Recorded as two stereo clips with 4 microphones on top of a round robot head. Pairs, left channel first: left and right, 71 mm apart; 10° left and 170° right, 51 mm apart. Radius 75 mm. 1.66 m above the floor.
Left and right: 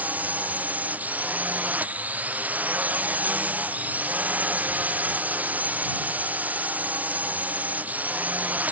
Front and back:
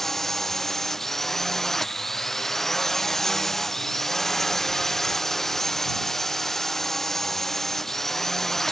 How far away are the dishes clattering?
I don't hear dishes clattering.